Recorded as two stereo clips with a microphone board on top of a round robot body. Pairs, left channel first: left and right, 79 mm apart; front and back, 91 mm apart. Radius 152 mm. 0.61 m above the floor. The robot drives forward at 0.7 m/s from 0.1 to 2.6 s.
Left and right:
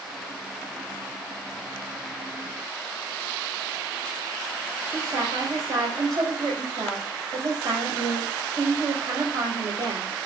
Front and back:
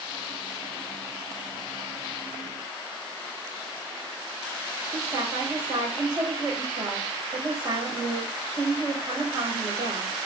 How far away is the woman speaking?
About 4 m.